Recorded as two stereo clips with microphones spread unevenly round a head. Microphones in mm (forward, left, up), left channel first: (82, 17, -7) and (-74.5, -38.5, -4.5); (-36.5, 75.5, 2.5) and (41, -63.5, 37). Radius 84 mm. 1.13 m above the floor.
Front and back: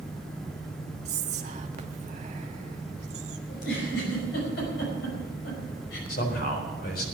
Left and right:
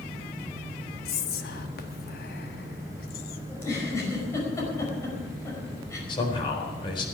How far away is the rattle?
I don't hear a rattle.